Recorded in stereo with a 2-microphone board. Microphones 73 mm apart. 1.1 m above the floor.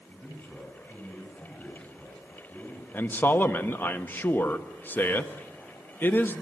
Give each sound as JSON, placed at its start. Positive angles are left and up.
{"t": 0.1, "sound": "a man speaking", "side_deg": 10, "distance_m": 8.5}
{"t": 2.9, "sound": "a man speaking", "side_deg": 25, "distance_m": 1.1}